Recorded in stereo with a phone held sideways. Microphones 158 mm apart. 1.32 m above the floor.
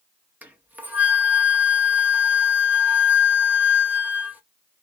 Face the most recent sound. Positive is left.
turn(degrees=-10)  # may be behind; listen again after turning